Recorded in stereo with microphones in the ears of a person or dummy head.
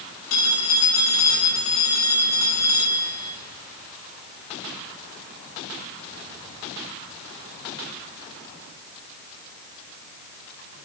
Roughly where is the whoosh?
I don't hear a whoosh.